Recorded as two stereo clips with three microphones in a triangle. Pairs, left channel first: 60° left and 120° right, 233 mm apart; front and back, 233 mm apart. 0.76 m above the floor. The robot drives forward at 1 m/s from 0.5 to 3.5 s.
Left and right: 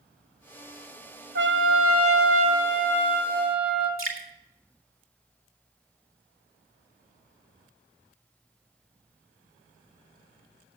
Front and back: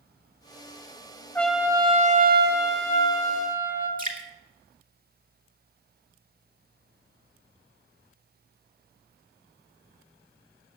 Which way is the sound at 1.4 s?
80° right.